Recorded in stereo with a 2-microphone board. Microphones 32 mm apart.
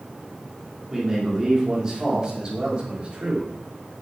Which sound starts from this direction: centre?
A man speaking, at 0.9 s.